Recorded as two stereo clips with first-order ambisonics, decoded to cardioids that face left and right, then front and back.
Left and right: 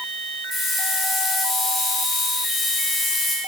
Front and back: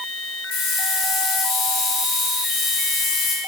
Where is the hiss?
15° left, 5 m.